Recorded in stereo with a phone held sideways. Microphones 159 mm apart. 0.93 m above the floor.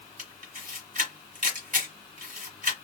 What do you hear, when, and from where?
0.2 s a camera shutter: 60° right (ahead or behind), 1.2 m